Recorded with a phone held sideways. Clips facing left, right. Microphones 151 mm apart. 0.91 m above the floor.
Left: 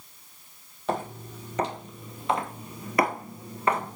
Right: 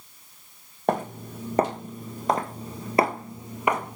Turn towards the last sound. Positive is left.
turn(degrees=-10)  # may be behind; listen again after turning